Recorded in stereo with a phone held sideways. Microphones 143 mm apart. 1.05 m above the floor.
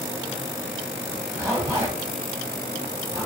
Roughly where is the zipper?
Centre.